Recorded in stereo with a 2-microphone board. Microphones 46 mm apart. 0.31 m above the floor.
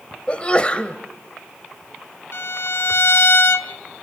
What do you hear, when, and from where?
0.3 s a sneeze: 25° left (ahead or behind), 1.2 m
2.3 s a violin: 65° left (ahead or behind), 0.6 m